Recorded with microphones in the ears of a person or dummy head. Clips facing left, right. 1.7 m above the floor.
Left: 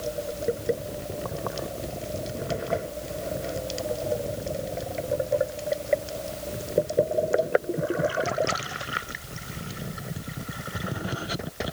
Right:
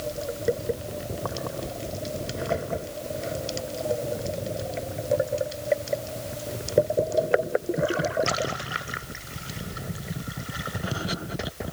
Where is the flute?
I don't hear a flute.